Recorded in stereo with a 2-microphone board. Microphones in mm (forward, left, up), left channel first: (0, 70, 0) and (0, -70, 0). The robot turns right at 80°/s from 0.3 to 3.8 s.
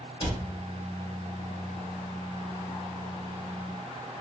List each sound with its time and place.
0.2 s a cupboard door: 40° left (ahead or behind), 0.9 m; by 0.4 s 50° left (ahead or behind), 0.9 m